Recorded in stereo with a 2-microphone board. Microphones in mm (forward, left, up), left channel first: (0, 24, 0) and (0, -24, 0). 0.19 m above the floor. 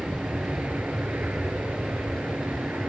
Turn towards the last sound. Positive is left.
turn(degrees=-35)  # may be behind; listen again after turning